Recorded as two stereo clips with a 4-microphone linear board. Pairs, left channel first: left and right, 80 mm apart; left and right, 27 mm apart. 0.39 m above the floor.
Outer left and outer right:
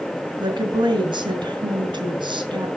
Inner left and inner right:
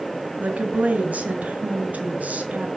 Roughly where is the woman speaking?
Right.